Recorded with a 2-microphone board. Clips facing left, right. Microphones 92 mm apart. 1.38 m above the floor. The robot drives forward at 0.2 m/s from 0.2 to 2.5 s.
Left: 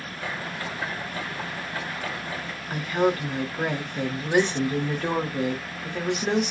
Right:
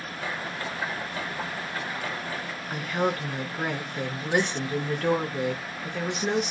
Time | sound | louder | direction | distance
2.7 | a woman speaking | left 4 dB | centre (ahead or behind) | 1.1 m